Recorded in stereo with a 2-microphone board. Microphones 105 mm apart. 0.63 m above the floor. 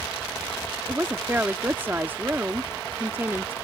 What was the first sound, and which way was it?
A woman speaking, 20° right (ahead or behind).